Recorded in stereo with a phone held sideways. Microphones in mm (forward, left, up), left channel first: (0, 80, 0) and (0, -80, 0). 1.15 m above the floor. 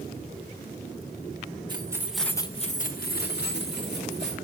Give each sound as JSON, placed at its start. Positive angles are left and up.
{"t": 1.7, "sound": "keys jangling", "side_deg": -25, "distance_m": 1.2}